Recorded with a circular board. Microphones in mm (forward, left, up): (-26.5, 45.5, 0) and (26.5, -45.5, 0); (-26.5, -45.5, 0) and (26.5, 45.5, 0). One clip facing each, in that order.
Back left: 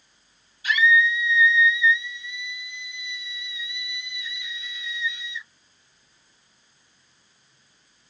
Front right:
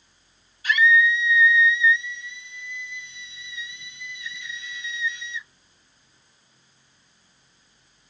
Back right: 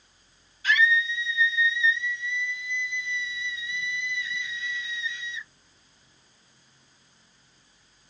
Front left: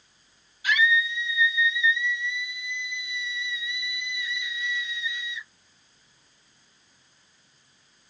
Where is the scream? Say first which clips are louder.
Front right 1 dB, even; 15° right, 4.5 m.